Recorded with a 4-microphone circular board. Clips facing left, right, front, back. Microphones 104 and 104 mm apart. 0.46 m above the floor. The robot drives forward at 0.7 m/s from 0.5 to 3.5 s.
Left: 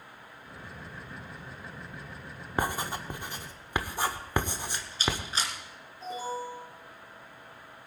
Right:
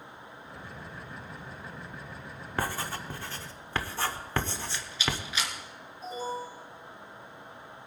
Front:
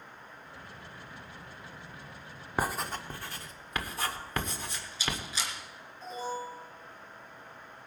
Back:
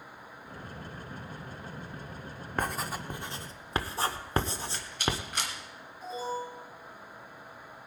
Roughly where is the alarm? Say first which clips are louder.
Even, back 2 dB; left.